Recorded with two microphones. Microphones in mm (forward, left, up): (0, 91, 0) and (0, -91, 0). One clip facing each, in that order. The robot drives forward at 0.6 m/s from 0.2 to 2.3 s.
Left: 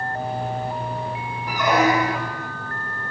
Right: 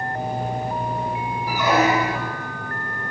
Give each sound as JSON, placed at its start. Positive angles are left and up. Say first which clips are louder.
{"t": 1.5, "sound": "a squeak", "louder": "even", "side_deg": -10, "distance_m": 0.8}